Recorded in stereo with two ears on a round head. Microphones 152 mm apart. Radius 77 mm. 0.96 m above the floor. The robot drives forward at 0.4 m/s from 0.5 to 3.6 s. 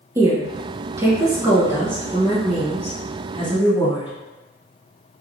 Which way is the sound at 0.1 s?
15° right (ahead or behind).